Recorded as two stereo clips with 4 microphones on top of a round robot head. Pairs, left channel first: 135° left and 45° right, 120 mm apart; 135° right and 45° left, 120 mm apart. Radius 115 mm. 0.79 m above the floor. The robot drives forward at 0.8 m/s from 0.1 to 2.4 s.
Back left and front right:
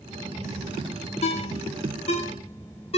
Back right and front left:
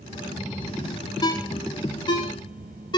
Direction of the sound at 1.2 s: 170° left.